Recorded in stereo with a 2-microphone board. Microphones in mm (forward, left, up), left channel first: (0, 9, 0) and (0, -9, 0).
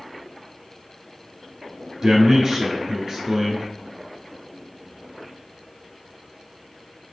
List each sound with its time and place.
2.0 s a man speaking: 40° right (ahead or behind), 1.4 m